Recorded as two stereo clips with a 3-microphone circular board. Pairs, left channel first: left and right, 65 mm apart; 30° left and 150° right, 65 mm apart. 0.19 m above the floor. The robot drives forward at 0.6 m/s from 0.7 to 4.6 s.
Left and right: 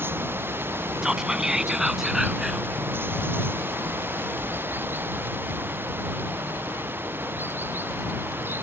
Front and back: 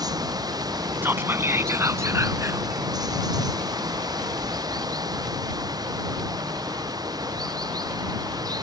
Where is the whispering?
165° right; by 2.7 s 175° right.